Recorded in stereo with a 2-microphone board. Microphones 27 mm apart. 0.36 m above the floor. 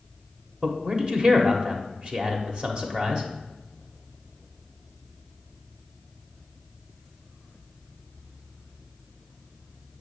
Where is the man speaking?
35° right (ahead or behind), 1.1 m.